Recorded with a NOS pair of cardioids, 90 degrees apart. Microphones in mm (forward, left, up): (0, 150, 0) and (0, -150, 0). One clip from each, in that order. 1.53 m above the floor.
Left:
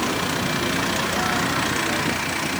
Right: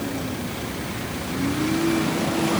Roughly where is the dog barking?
I don't hear a dog barking.